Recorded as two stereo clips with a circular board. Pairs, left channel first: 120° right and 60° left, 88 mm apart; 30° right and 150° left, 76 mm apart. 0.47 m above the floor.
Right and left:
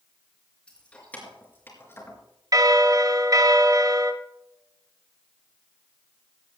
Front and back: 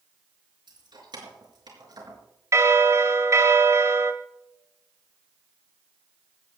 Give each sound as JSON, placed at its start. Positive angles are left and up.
{"t": 0.7, "sound": "keys jangling", "azimuth_deg": 160, "distance_m": 4.5}
{"t": 2.5, "sound": "a bell", "azimuth_deg": 105, "distance_m": 1.3}